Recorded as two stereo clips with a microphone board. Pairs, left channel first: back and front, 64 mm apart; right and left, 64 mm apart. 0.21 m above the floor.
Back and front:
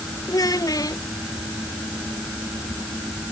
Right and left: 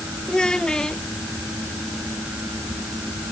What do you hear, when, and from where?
0.3 s a child speaking: 170° right